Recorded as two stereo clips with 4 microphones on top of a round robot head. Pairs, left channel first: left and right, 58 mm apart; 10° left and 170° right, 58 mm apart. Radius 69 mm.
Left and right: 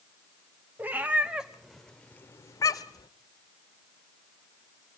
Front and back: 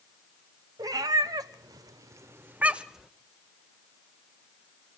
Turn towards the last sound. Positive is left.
turn(degrees=100)